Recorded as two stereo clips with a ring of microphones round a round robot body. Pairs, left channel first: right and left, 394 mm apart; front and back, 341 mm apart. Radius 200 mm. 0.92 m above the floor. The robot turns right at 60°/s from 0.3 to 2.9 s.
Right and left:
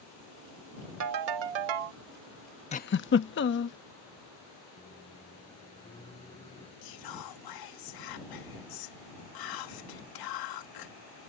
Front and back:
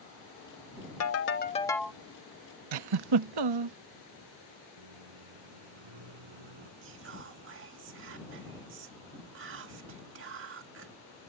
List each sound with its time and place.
1.0 s a ringtone: 40° left; by 2.0 s 100° left
2.7 s a giggle: 165° right; by 3.8 s 155° right
4.8 s a microwave: 170° right
6.8 s whispering: 120° right